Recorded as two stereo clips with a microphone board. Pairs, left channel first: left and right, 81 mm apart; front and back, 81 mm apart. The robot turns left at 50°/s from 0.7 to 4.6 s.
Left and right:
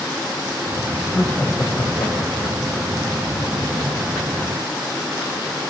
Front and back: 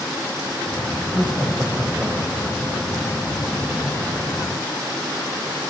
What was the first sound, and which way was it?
Laughter, 170° left.